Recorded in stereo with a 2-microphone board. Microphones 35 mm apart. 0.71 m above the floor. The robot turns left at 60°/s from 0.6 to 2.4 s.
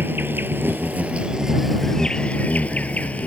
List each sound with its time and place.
0.0 s an insect: 110° right; by 3.3 s 140° left